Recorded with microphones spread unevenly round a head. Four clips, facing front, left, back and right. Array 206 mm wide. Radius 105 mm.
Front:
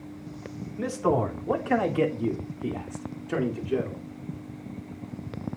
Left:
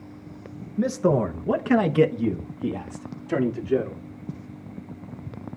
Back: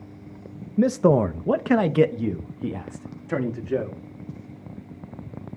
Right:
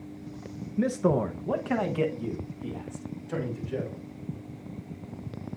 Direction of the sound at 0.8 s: 175° left.